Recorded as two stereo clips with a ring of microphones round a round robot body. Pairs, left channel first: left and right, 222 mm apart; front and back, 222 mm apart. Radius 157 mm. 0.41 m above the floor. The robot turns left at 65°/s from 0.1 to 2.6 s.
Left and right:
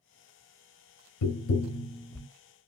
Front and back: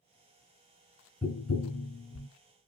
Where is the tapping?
70° left, 0.5 m; by 2.3 s straight ahead, 0.5 m.